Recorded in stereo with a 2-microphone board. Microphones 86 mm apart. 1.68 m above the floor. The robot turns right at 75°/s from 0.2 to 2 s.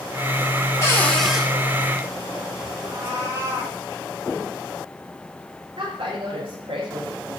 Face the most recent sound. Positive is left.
turn(degrees=-80)